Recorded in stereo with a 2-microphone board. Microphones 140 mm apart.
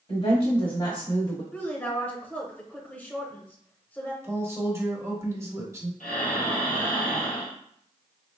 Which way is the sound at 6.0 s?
90° left.